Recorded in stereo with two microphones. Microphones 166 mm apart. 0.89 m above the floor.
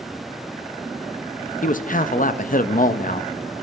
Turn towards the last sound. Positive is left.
turn(degrees=55)  # may be behind; listen again after turning